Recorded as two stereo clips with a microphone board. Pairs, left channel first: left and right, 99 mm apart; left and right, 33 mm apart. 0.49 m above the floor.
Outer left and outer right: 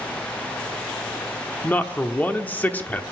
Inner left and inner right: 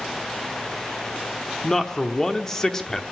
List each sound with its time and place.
1.6 s a man speaking: 15° left (ahead or behind), 0.9 m